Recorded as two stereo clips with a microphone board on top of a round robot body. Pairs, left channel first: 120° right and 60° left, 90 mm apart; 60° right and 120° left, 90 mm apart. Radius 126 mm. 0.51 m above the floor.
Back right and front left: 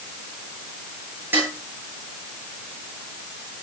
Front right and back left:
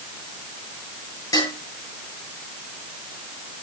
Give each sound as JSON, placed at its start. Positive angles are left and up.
{"t": 1.3, "sound": "dishes clattering", "azimuth_deg": -5, "distance_m": 8.0}